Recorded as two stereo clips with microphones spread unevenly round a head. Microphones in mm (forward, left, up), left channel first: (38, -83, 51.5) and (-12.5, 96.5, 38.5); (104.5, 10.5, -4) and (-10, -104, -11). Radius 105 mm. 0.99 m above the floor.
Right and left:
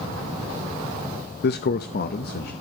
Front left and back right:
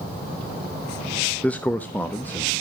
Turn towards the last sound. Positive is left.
turn(degrees=-35)